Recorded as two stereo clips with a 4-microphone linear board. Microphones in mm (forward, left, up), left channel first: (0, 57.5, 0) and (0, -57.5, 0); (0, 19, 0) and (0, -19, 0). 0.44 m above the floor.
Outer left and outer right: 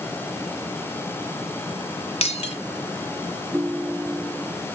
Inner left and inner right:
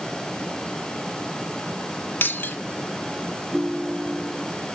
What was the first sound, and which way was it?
Breaking glass, 60° left (ahead or behind).